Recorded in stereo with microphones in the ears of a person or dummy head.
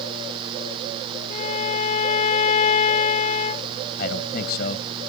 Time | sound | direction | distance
1.3 | a violin | 40° left (ahead or behind) | ?
4.0 | a man speaking | 60° left (ahead or behind) | ?